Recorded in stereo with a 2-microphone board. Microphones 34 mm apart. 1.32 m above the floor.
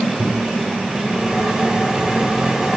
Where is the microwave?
15° right (ahead or behind), 3.5 m.